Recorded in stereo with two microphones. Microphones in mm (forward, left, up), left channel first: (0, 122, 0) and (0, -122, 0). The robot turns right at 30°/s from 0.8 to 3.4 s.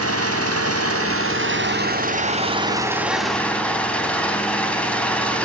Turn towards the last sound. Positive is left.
turn(degrees=5)